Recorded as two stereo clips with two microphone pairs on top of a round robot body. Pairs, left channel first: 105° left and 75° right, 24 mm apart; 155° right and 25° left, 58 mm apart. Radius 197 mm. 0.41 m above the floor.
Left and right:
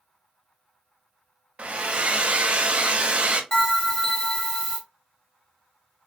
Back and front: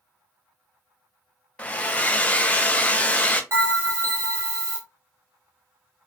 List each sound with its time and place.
1.6 s a hair dryer: 95° right, 0.5 m
3.5 s a bell: 60° left, 1.9 m